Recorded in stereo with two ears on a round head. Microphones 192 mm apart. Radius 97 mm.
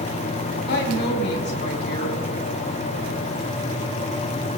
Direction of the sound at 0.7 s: 55° left (ahead or behind).